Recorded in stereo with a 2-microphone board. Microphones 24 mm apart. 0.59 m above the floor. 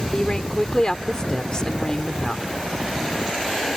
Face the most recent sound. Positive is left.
turn(degrees=30)  # may be behind; listen again after turning